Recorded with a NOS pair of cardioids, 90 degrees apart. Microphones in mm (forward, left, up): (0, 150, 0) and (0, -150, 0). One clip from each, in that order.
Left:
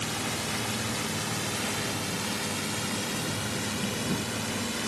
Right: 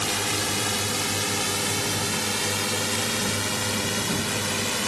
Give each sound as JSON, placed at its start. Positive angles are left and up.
{"t": 0.0, "sound": "a drone", "azimuth_deg": -55}